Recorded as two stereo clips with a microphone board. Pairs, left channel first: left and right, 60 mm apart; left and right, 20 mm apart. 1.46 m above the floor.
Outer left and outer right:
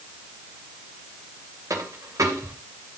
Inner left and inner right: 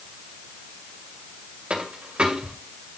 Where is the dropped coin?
70° right (ahead or behind), 2.5 m.